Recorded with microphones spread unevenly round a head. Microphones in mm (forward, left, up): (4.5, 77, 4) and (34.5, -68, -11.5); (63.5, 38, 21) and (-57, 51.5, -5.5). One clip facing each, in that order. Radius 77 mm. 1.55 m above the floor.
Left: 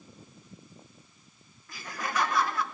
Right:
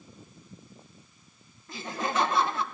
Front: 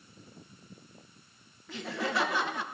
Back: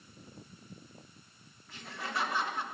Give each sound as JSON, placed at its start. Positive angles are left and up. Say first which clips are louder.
{"t": 1.7, "sound": "laughter", "louder": "right 4 dB, front 7 dB", "azimuth_deg": -10, "distance_m": 1.0}